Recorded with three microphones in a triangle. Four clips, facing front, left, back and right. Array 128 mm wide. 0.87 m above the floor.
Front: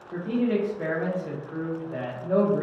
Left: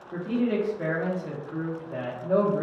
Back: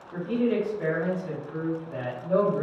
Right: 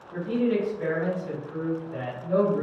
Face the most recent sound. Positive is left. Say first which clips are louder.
# right 1 dB, even
turn(degrees=40)